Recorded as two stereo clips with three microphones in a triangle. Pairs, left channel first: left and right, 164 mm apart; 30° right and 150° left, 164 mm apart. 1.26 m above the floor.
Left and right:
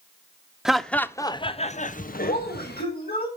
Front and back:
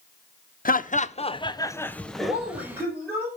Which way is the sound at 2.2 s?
75° left.